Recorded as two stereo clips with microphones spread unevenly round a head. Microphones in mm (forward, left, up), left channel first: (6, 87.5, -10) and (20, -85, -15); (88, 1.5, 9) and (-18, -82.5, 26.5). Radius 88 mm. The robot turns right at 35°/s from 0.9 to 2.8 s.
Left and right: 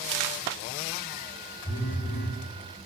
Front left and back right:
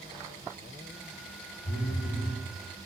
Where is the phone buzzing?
55° left, 0.7 m; by 2.4 s 80° left, 0.7 m.